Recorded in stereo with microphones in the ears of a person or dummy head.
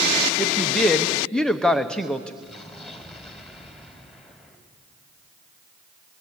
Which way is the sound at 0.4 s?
Centre (ahead or behind).